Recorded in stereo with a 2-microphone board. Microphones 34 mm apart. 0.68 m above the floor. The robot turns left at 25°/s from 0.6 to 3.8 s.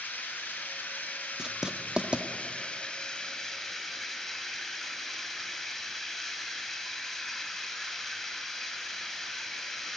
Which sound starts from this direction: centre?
Writing, at 1.4 s.